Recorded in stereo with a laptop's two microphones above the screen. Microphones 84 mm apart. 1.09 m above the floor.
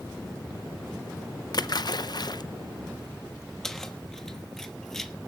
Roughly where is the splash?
Left.